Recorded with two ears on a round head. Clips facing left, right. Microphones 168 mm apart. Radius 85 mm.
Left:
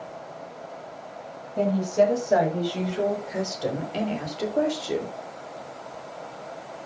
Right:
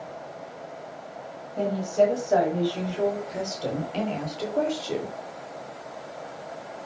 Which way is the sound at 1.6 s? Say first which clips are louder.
Left 1 dB; 25° left (ahead or behind).